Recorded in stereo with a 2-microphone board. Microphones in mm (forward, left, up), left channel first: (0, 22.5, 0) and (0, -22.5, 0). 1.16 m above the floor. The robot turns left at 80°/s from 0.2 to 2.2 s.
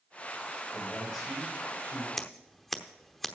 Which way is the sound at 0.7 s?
30° left.